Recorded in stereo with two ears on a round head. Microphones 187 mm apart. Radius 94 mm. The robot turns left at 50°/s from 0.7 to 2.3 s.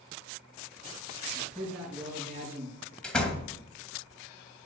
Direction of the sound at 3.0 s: 5° left (ahead or behind).